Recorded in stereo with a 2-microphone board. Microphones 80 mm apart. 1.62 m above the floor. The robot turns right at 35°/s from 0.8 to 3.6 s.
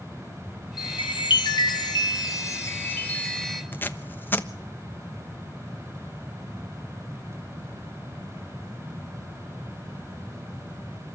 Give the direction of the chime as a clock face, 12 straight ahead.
9 o'clock.